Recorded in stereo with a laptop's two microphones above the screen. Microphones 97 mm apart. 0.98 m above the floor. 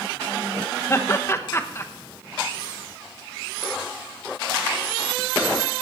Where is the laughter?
30° left (ahead or behind), 0.8 m.